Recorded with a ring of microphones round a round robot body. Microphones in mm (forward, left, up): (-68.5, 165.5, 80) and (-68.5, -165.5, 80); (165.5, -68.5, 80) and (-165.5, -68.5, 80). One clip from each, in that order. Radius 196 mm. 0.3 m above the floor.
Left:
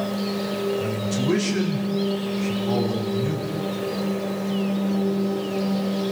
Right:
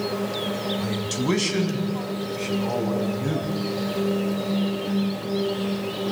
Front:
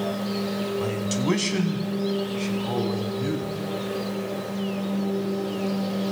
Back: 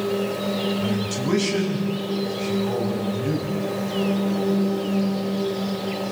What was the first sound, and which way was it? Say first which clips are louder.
A man speaking: left 1 dB, back 1 dB; 40° right.